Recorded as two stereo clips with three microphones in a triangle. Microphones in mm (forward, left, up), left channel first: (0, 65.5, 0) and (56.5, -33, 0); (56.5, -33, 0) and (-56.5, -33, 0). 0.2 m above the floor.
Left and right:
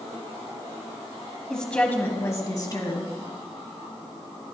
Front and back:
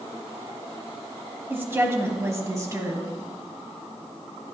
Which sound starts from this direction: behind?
A woman speaking, at 1.5 s.